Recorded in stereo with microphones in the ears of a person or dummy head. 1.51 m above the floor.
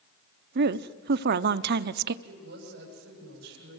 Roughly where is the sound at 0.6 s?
Right.